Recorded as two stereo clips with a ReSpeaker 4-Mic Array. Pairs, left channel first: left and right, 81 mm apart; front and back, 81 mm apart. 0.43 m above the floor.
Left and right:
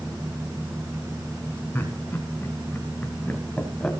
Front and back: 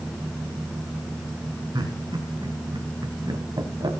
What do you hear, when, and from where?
1.7 s laughter: 155° left, 3.5 m; by 3.9 s 165° left, 2.5 m